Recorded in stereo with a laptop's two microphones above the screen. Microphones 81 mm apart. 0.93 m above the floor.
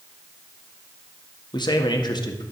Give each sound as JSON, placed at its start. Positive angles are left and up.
{"t": 1.5, "sound": "a man speaking", "side_deg": 60, "distance_m": 1.7}